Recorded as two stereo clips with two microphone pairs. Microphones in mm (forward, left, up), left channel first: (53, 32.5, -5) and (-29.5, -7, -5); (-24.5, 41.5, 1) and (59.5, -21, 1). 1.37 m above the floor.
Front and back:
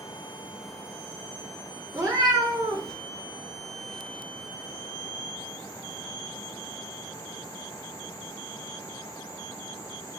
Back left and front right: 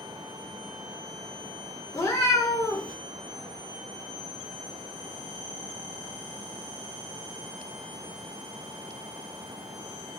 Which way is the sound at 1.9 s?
175° left.